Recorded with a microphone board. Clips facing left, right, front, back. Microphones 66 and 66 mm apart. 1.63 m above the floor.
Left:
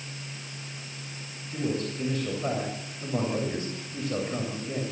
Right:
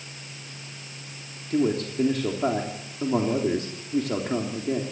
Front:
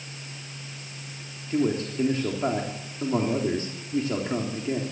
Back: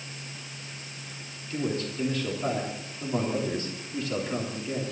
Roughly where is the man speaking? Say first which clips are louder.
Right 6 dB, front 5 dB; ahead right.